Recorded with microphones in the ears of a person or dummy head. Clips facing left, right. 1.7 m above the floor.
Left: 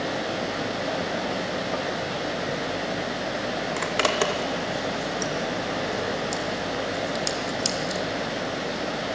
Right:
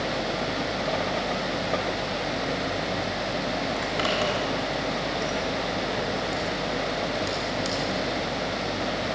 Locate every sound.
3.8 s a zipper: 70° left (ahead or behind), 2 m